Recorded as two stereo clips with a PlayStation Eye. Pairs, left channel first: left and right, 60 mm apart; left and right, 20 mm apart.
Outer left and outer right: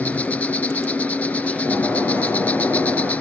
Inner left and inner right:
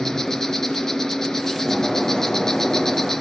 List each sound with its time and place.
0.0 s an insect: 25° left (ahead or behind), 1.0 m
1.6 s breaking glass: 35° left (ahead or behind), 4.5 m